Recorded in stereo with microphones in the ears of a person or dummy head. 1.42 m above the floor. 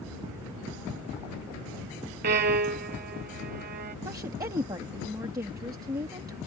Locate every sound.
2.2 s a violin: 55° right (ahead or behind)
4.0 s a woman speaking: 25° right (ahead or behind)